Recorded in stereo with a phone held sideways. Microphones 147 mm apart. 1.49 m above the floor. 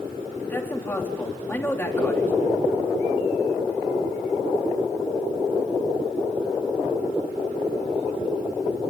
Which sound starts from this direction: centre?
A man speaking, at 0.4 s.